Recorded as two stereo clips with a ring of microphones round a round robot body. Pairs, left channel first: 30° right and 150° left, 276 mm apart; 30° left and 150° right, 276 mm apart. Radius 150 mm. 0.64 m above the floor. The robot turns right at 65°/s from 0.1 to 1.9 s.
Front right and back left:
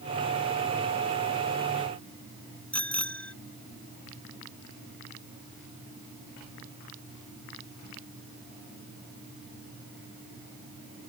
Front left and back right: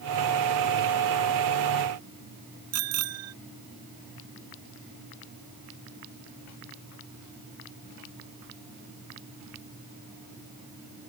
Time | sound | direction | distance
2.7 | a bicycle bell | 115° right | ?